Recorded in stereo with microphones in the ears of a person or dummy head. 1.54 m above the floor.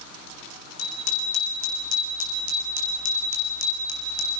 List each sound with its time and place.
0.8 s a bicycle bell: 85° left, 8.5 m; by 4.3 s 80° left, 5 m